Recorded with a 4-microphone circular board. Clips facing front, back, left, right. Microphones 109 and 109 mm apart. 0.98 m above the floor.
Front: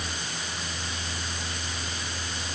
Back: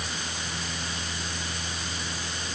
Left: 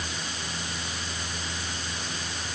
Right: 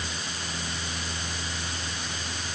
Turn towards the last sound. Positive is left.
No sound to turn to.